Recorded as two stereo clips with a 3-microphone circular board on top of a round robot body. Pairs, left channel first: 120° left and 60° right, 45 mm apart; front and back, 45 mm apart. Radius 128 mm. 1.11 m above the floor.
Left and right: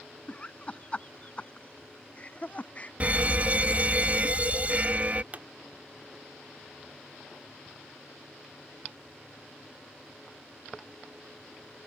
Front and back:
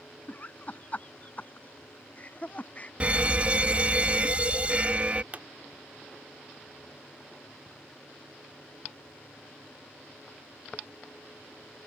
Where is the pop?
120° right.